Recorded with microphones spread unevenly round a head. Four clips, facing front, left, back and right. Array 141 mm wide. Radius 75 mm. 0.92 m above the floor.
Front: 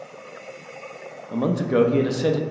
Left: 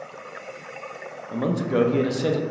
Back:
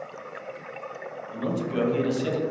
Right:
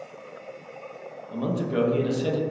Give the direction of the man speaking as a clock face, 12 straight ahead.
11 o'clock.